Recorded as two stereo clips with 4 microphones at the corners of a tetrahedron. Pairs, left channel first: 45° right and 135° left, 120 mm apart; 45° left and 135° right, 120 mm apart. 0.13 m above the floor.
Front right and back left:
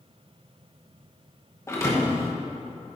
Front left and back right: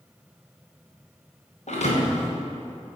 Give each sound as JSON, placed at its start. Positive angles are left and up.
{"t": 1.7, "sound": "a thud", "azimuth_deg": 20, "distance_m": 3.0}